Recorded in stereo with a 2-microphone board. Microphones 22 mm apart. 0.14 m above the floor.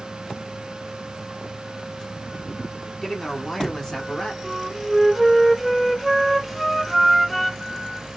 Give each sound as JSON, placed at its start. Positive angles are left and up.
{"t": 3.0, "sound": "a man speaking", "side_deg": 20, "distance_m": 1.2}
{"t": 4.4, "sound": "a flute", "side_deg": 5, "distance_m": 0.6}